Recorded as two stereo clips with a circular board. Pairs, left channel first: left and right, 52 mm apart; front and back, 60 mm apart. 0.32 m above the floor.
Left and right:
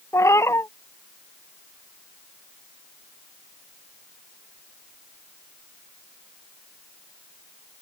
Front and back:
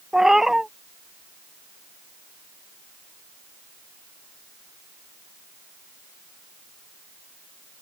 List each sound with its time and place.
0.1 s a cat meowing: 100° left